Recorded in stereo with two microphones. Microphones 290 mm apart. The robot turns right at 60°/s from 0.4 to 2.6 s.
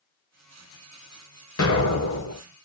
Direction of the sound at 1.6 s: 60° left.